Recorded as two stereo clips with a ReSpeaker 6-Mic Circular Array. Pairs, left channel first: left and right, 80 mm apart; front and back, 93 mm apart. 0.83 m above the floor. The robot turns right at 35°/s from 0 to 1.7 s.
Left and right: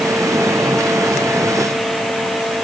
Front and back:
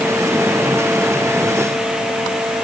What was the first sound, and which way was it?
Only background noise.